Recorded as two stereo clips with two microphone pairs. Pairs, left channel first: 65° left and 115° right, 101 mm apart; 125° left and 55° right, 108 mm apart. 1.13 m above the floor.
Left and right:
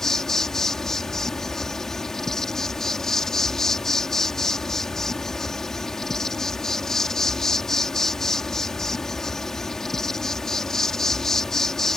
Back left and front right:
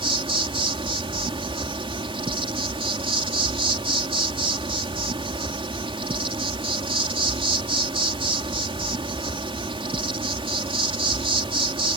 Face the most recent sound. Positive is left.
turn(degrees=-20)